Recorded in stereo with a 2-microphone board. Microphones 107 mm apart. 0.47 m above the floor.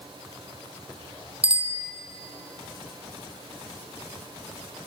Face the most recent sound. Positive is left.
turn(degrees=-70)  # may be behind; listen again after turning